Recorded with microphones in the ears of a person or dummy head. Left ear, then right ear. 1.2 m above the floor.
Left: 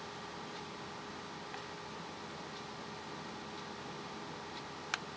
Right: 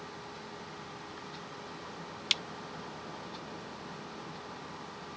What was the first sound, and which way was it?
Only background noise.